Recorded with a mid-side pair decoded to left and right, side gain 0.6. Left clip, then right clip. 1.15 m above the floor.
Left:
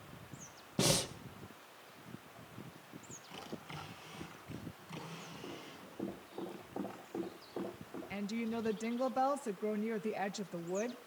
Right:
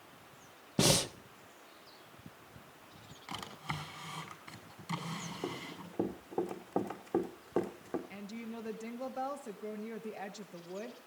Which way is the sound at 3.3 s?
65° right.